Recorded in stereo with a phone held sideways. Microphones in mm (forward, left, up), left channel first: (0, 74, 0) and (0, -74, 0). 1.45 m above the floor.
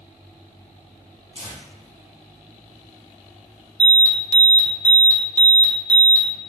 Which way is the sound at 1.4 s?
40° right (ahead or behind).